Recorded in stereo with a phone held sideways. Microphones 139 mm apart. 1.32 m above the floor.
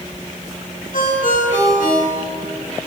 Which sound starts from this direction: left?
A ringtone, at 0.9 s.